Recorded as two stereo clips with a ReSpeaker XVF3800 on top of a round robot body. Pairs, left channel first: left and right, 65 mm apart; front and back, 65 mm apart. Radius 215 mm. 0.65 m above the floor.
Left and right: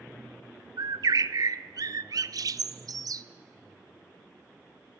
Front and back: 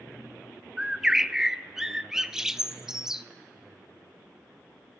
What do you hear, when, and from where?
0.8 s a bird: 100° right, 0.5 m